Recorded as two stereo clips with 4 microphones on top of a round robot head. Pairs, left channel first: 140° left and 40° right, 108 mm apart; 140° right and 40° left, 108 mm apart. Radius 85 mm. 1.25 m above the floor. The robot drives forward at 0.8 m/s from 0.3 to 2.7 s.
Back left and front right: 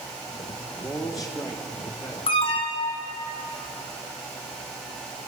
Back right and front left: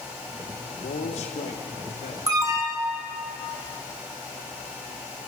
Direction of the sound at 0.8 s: 125° right.